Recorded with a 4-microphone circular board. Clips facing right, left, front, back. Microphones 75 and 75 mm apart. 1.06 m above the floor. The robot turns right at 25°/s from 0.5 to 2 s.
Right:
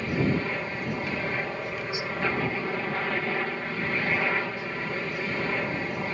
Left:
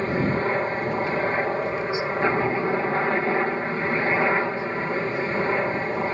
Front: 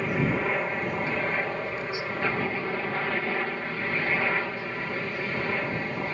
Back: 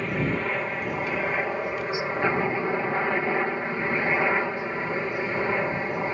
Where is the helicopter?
85° left; by 6.2 s 120° left.